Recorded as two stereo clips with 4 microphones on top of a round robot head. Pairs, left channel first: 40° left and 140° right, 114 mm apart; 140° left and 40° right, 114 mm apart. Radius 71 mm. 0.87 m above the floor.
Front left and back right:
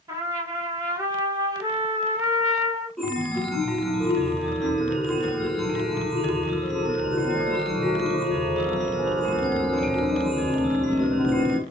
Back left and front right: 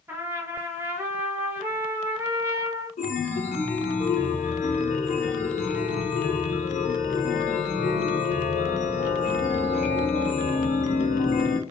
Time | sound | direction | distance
0.1 | a trumpet | 100° right | 1.1 m
3.0 | a chime | 130° left | 0.9 m